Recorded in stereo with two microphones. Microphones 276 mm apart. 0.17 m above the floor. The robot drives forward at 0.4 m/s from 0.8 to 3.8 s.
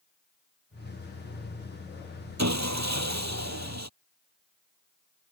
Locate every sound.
2.4 s sawing: 75° right (ahead or behind); by 3.9 s 70° right (ahead or behind)